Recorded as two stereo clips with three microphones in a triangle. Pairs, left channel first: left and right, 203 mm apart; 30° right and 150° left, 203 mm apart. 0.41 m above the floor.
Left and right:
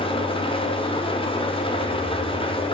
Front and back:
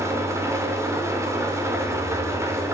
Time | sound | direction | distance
0.0 | an engine running | 95° left | 0.9 m